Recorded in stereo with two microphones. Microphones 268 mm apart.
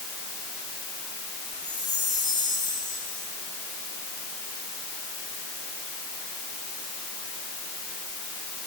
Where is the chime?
70° left (ahead or behind), 7.5 m.